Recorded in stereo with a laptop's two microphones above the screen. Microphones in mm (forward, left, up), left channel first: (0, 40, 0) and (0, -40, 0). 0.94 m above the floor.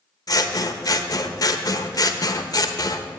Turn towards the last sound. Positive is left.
turn(degrees=50)  # may be behind; listen again after turning